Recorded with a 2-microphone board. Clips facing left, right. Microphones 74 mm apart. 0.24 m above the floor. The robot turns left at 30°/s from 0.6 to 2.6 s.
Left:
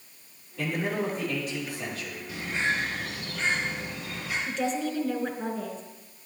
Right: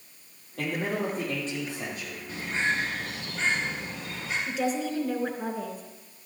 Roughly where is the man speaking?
Behind right.